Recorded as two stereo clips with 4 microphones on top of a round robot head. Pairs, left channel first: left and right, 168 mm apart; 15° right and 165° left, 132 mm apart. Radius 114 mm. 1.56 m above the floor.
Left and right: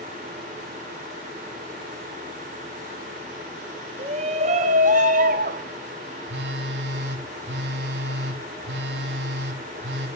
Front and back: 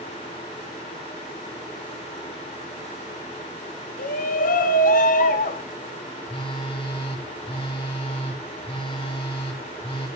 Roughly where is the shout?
Ahead right.